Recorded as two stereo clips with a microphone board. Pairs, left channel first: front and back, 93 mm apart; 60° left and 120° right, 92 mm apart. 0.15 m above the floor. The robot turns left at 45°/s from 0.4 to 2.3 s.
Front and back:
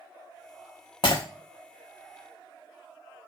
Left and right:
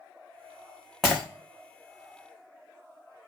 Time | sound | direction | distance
1.0 | breaking glass | 30° right | 0.9 m